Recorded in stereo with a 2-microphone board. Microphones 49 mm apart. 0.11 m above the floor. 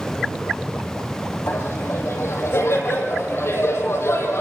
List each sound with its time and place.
1.5 s laughter: 65° left (ahead or behind), 3.5 m